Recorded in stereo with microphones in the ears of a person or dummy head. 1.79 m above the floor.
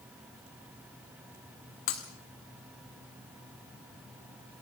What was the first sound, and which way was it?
Breaking glass, 40° left (ahead or behind).